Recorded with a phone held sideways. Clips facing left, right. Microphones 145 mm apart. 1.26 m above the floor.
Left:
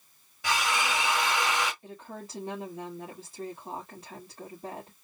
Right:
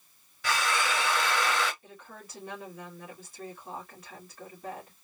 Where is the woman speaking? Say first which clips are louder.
Left 6 dB; 30° left (ahead or behind), 2 m.